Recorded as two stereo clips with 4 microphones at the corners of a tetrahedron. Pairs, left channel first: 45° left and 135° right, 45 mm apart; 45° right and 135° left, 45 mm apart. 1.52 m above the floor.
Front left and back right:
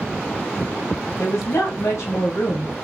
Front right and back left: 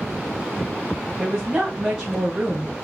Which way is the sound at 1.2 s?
70° left.